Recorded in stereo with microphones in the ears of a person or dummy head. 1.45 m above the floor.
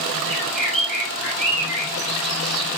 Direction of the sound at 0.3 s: 5° right (ahead or behind).